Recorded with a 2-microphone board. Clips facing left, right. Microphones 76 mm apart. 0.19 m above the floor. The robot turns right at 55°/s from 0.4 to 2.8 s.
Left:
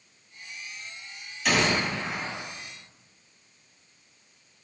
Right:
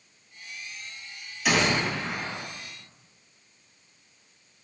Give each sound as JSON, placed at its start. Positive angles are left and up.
{"t": 1.4, "sound": "a gunshot", "side_deg": -5, "distance_m": 1.1}